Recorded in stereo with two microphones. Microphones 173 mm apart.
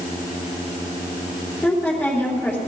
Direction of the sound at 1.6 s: 10° left (ahead or behind).